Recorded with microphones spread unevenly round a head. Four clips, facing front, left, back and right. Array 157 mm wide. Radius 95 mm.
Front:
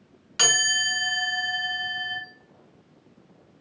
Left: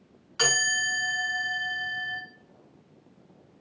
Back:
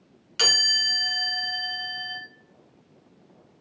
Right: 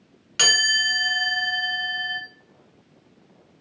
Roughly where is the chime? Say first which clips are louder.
Right 3 dB, front 3 dB; right.